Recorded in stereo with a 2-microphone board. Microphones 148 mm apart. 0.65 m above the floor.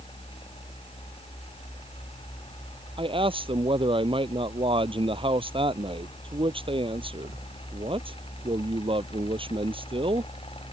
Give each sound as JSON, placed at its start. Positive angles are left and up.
{"t": 3.0, "sound": "a man speaking", "side_deg": -40}